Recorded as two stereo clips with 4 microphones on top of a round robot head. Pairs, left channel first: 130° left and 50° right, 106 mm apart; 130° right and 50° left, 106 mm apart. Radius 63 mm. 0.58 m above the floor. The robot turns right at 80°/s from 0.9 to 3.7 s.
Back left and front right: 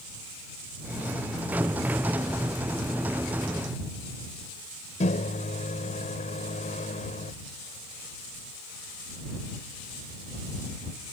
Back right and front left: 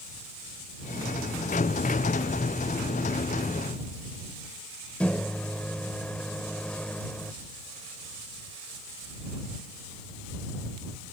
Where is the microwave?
150° left.